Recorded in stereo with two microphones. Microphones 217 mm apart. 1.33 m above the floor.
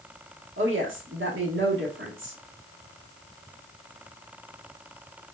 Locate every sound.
0.6 s a woman speaking: 60° right (ahead or behind), 1.3 m